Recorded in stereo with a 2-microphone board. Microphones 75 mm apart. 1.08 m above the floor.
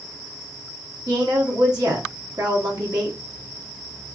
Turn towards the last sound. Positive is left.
turn(degrees=-70)  # may be behind; listen again after turning